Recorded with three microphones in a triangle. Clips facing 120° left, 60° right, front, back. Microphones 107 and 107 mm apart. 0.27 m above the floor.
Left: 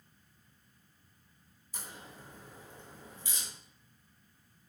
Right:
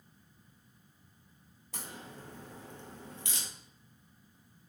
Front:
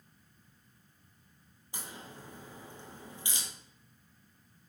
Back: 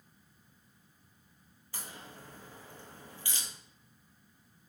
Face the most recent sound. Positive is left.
turn(degrees=-70)